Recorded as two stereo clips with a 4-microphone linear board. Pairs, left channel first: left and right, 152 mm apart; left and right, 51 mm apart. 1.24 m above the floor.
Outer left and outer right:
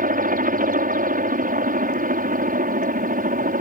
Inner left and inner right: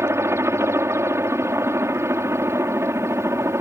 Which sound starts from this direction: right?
A helicopter, at 0.0 s.